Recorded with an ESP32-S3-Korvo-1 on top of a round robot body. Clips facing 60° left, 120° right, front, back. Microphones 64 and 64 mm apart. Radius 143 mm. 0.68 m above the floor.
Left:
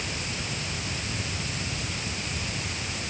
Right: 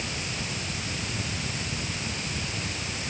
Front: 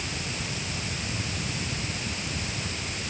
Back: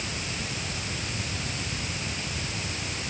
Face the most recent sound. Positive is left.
No sound to turn to.